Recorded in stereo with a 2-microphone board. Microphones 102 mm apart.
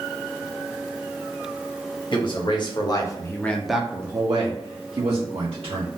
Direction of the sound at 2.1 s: 55° left (ahead or behind).